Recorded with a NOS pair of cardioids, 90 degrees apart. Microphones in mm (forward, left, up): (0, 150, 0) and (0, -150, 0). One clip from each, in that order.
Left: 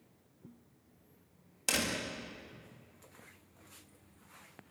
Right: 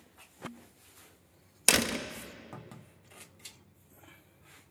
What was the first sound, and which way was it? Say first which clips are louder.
A door slam: right 6 dB; 65° right.